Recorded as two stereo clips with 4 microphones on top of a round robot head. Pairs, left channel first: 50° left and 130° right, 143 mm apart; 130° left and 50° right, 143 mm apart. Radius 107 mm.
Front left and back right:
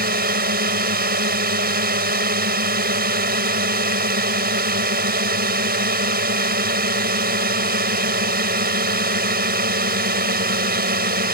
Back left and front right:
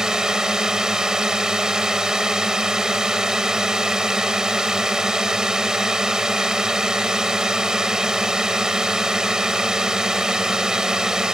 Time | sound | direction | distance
0.0 | a drone | 135° right | ?